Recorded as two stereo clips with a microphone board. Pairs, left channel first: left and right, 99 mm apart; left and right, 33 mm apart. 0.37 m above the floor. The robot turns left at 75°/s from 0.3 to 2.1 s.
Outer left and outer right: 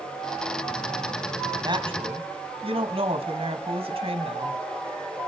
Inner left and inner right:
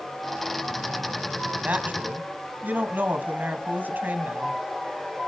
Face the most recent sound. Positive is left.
turn(degrees=-80)